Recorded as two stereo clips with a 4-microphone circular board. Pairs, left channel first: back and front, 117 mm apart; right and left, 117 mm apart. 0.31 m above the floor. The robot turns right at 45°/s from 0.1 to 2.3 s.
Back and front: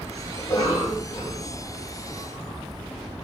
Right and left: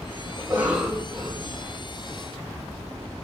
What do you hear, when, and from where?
0.4 s a cough: 130° left, 2.0 m; by 1.5 s 175° right, 2.0 m